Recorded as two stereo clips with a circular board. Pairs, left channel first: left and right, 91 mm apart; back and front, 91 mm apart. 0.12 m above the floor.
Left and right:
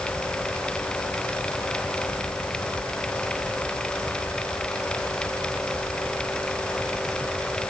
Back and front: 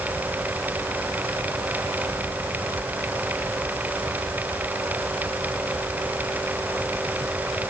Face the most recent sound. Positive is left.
No sound to turn to.